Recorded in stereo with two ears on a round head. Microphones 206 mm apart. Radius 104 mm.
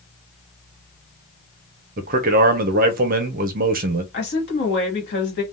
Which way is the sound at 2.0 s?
40° right (ahead or behind).